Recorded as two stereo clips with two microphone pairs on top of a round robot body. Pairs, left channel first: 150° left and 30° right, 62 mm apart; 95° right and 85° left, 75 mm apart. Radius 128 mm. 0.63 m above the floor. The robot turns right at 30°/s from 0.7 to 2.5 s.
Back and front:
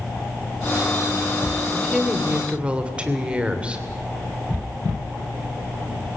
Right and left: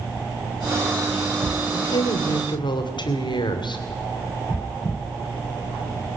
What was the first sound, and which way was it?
A woman speaking, 125° right.